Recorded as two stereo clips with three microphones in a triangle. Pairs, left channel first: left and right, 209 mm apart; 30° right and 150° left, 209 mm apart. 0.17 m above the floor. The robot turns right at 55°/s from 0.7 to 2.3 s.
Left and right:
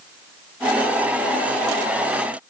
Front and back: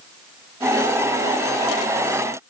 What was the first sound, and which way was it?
Only background noise.